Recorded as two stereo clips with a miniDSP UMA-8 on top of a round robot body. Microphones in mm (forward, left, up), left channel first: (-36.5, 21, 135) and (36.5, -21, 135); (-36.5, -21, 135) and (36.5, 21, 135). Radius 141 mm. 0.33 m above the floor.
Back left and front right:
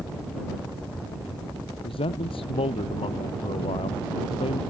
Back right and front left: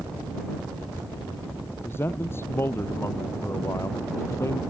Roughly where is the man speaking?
Behind left.